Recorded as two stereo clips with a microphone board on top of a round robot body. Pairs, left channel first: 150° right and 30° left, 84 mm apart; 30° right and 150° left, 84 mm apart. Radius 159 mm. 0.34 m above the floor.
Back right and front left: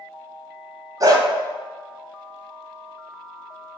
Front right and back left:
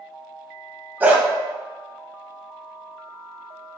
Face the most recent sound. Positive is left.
turn(degrees=80)